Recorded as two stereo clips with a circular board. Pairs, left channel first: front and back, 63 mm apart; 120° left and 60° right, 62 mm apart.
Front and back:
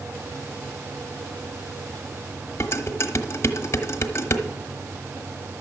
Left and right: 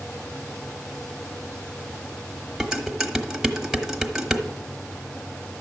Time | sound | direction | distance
2.6 | dishes clattering | 20° left | 1.0 m